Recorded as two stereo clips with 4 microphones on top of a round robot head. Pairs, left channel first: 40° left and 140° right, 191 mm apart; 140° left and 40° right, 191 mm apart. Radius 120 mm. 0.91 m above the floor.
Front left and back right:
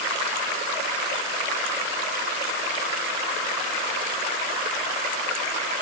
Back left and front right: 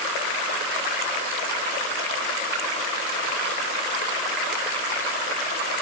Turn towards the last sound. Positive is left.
No sound to turn to.